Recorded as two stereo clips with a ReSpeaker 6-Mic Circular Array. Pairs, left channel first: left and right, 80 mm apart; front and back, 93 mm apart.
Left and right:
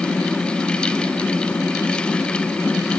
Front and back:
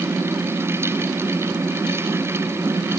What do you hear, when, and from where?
Only background noise.